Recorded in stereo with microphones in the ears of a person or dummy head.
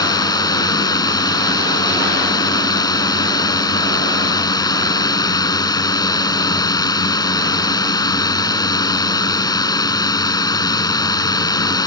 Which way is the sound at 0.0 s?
25° left (ahead or behind).